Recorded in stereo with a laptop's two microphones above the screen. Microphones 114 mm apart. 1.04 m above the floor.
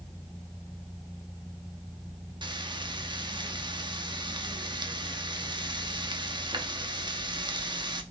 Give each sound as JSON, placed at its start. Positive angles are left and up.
{"t": 2.4, "sound": "frying", "side_deg": -40, "distance_m": 0.8}